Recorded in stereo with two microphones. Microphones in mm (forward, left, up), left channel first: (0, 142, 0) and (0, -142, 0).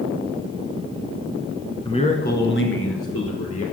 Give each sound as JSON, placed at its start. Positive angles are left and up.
{"t": 1.9, "sound": "a man speaking", "side_deg": 15, "distance_m": 1.0}